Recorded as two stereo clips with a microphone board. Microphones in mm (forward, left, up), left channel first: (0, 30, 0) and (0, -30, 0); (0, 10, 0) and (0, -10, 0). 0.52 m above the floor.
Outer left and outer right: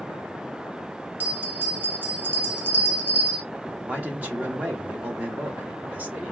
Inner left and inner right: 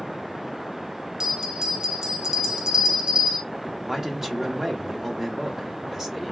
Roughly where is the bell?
Right.